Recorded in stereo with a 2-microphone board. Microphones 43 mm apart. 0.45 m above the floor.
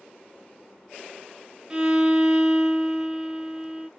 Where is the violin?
20° right (ahead or behind), 0.8 m.